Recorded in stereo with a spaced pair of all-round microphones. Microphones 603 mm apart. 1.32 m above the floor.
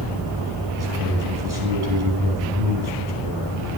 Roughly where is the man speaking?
Right.